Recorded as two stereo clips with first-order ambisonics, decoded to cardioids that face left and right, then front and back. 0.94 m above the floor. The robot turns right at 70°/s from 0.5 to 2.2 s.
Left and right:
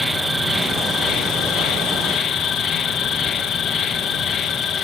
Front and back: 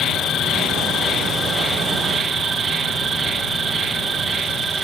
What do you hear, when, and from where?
0.0 s an insect: straight ahead; by 4.8 s 120° left